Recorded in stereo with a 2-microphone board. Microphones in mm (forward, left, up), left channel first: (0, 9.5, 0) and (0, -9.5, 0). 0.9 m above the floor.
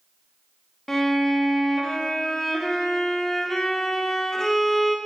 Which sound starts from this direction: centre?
A violin, at 0.9 s.